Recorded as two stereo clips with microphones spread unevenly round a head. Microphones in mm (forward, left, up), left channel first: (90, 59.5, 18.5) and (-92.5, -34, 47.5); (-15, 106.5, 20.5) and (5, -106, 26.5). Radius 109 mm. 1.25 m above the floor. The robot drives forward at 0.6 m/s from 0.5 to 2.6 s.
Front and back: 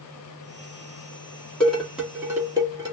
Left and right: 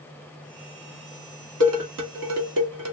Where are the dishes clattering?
60° right, 1.7 m; by 2.9 s 80° right, 1.5 m.